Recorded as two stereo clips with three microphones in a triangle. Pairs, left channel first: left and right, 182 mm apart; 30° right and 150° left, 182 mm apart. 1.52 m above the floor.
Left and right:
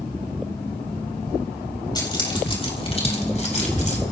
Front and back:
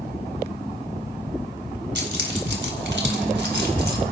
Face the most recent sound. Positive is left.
turn(degrees=135)